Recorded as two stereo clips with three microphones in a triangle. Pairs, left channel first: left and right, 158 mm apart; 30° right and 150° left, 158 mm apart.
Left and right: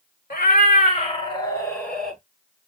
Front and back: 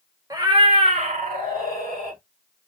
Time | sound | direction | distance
0.3 | a cat meowing | 85° left | 0.8 m